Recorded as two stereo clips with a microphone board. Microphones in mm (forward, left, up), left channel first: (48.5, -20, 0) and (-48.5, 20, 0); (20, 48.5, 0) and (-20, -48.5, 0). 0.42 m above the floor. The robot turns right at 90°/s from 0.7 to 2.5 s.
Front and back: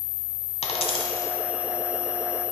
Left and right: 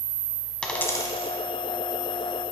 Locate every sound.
0.6 s a dropped coin: 15° right, 1.0 m; by 1.3 s 40° left, 1.0 m